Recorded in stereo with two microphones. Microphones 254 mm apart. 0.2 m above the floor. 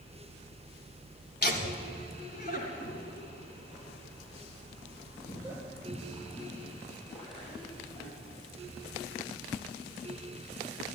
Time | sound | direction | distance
1.4 | laughter | 40° left (ahead or behind) | 1.7 m